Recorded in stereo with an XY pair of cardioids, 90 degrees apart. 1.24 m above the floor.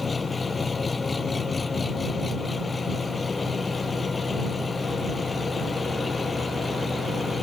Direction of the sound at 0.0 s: 35° left.